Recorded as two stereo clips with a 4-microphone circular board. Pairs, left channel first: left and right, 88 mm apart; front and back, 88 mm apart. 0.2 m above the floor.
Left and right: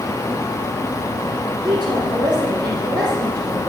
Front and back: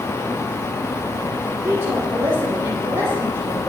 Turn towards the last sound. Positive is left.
turn(degrees=-120)